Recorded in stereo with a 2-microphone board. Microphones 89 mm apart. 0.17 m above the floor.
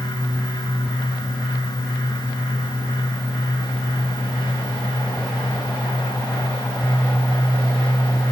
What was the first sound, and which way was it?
Only background noise.